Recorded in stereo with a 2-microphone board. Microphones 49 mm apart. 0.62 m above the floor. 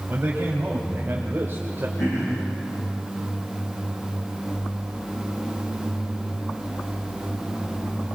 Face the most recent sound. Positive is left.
turn(degrees=85)